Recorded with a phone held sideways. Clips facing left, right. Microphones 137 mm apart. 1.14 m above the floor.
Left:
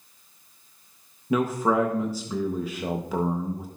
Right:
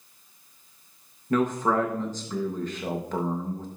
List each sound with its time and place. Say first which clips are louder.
1.3 s a man speaking: left 1 dB; 10° left (ahead or behind), 0.9 m